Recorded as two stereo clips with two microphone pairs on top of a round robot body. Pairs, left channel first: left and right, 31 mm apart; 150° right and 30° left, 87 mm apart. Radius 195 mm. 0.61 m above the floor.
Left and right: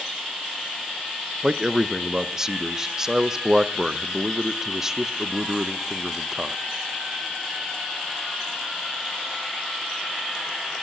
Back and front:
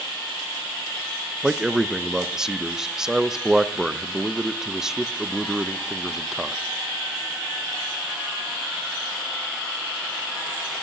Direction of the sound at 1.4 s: 40° right.